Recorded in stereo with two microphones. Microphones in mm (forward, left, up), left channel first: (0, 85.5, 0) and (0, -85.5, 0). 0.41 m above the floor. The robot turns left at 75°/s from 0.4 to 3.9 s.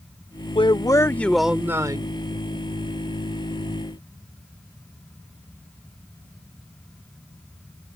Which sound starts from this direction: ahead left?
A man speaking, at 0.6 s.